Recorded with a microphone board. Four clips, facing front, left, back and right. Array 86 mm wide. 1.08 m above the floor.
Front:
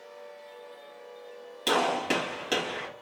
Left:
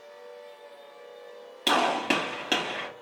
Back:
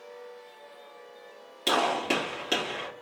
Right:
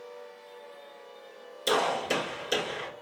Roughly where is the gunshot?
Left.